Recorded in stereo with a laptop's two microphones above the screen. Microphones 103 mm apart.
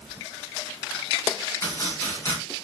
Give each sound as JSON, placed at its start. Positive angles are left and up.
{"t": 1.6, "sound": "chopping", "side_deg": 30, "distance_m": 2.5}